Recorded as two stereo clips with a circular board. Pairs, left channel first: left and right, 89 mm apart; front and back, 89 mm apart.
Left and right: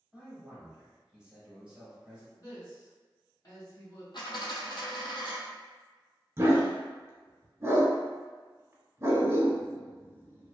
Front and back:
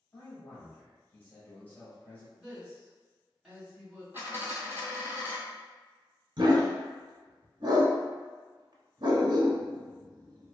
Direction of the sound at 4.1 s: 115° left.